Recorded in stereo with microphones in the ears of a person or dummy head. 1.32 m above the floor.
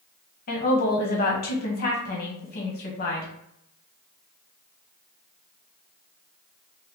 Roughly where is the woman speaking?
Left.